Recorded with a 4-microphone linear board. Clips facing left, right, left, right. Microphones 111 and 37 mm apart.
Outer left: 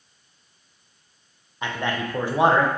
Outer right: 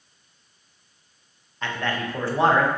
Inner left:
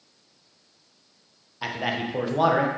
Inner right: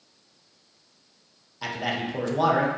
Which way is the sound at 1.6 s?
15° left (ahead or behind).